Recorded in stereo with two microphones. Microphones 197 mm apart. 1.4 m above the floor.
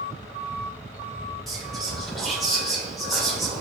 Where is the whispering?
Centre (ahead or behind), 1.5 m.